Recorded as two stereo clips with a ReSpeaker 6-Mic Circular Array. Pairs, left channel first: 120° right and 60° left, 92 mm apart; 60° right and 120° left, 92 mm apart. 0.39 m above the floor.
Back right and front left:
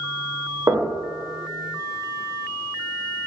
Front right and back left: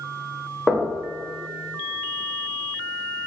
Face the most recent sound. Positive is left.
turn(degrees=30)